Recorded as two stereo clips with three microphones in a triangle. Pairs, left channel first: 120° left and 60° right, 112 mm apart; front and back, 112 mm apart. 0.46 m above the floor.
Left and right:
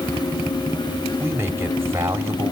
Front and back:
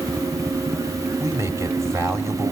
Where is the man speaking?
125° right, 2 m.